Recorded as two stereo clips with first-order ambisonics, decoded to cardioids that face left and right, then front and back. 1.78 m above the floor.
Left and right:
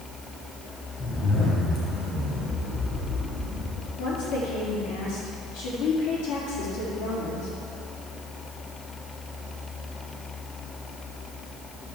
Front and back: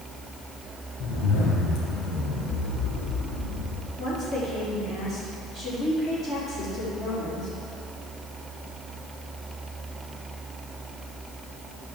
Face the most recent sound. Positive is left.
turn(degrees=70)